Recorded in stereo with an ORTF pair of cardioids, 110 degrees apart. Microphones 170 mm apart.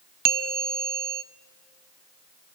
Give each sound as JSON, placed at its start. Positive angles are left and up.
{"t": 0.2, "sound": "a bell", "azimuth_deg": -60, "distance_m": 0.6}